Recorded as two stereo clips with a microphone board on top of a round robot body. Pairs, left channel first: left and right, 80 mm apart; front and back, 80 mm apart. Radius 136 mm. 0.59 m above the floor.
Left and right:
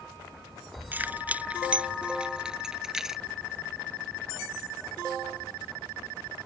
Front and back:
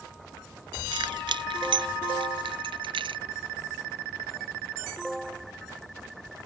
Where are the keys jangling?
160° right; by 3.2 s 175° right.